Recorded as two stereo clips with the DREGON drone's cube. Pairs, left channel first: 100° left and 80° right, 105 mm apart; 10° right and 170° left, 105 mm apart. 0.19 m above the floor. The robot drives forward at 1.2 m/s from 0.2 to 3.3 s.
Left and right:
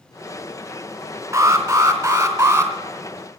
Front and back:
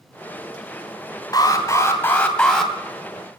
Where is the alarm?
35° right, 2.5 m; by 2.7 s 105° right, 2.5 m.